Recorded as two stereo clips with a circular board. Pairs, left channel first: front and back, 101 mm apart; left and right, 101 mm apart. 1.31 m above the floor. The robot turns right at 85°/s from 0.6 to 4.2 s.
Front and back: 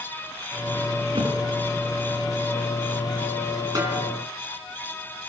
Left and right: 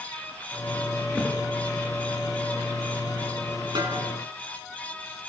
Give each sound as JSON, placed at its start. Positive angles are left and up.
{"t": 1.1, "sound": "a thud", "azimuth_deg": 155, "distance_m": 3.0}
{"t": 3.8, "sound": "a snare drum", "azimuth_deg": -125, "distance_m": 5.5}